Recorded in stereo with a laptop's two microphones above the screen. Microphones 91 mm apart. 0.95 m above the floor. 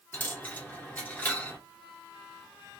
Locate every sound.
0.1 s a dropped coin: 20° left (ahead or behind), 0.8 m